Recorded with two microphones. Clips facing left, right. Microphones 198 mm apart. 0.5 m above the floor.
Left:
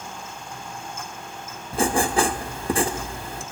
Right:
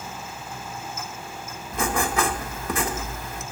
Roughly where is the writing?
Left.